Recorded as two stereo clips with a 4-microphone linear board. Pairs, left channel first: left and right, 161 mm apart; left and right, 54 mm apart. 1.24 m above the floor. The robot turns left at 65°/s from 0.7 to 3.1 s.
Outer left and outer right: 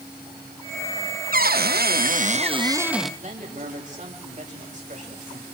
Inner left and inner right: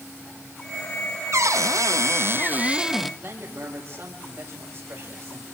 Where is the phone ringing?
I don't hear a phone ringing.